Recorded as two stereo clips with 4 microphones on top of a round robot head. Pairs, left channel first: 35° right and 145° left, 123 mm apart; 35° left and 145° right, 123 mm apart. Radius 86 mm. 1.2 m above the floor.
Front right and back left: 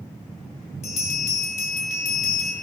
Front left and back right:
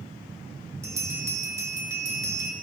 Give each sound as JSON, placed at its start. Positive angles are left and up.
{"t": 0.8, "sound": "a bell", "azimuth_deg": -75, "distance_m": 2.5}